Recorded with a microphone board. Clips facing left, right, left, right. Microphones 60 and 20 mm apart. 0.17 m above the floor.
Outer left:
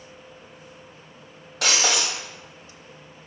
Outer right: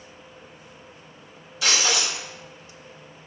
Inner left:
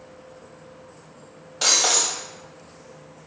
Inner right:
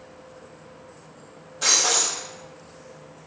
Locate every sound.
1.6 s breaking glass: 65° left (ahead or behind), 1.7 m